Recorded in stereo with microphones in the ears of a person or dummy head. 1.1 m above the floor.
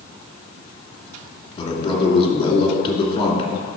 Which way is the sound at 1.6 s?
25° left (ahead or behind).